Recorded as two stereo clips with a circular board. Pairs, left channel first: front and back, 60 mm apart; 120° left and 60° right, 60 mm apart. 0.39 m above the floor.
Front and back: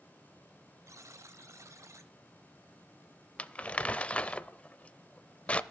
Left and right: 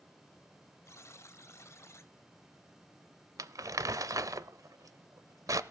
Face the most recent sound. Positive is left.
turn(degrees=-65)